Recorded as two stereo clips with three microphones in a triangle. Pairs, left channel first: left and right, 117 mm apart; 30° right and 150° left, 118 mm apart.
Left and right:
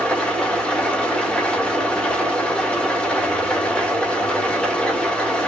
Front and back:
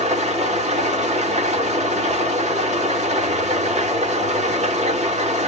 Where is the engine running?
170° left, 1.0 m.